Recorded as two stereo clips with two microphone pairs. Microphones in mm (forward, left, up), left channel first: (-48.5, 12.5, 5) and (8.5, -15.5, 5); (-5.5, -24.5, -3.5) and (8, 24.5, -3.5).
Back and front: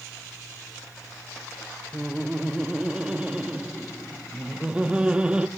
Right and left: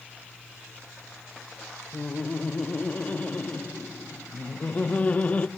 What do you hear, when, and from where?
1.9 s laughter: 85° right, 0.8 m